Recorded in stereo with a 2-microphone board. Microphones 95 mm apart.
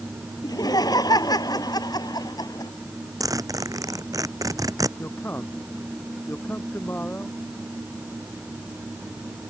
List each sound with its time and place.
0.4 s laughter: 40° left (ahead or behind)
3.2 s a zipper: 35° right (ahead or behind)
5.0 s a man speaking: 20° left (ahead or behind)